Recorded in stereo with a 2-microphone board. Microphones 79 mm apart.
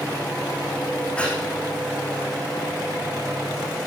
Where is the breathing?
15° left (ahead or behind), 5.5 m.